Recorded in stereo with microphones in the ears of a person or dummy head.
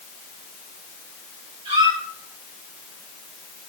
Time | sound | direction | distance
1.6 | a squeak | 30° right (ahead or behind) | 5.5 m